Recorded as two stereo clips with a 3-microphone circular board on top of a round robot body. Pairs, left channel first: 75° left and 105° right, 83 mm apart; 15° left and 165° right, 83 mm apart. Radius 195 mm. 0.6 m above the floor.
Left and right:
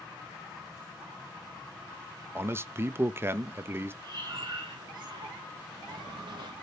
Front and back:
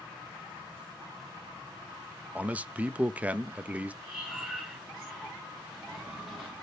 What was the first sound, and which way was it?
A man speaking, 115° right.